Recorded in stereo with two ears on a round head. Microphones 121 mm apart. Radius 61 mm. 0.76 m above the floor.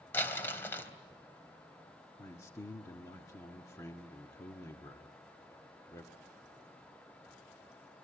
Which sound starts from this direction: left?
A man speaking, at 2.2 s.